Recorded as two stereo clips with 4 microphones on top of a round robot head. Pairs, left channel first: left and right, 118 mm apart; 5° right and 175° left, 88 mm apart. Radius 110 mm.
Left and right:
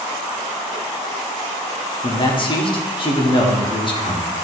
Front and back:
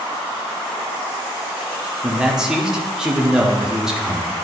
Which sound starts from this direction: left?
A man speaking, at 2.0 s.